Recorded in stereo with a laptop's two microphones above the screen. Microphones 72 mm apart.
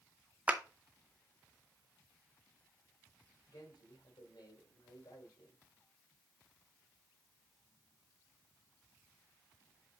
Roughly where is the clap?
Centre.